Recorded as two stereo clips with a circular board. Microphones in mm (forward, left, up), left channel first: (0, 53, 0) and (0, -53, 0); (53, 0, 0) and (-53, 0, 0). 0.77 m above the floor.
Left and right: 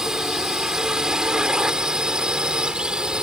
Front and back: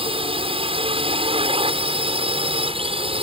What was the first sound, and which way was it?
A drone, 175° right.